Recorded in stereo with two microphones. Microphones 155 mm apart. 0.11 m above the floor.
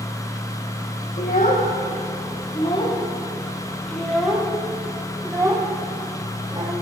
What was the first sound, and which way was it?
A child speaking, 60° left (ahead or behind).